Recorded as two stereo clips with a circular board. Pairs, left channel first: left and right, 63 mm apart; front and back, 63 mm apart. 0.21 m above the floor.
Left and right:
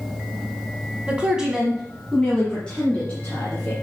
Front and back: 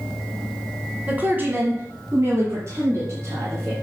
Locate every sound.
1.1 s a woman speaking: 145° right, 1.4 m; by 3.7 s 150° left, 2.5 m